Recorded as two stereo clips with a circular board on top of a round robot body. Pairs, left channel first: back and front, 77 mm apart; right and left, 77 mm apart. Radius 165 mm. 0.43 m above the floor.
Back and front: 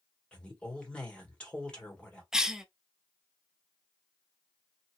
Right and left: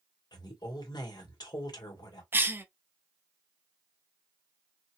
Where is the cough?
75° left, 0.8 m.